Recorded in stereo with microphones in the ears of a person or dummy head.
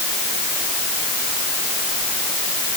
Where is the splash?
No splash in this recording.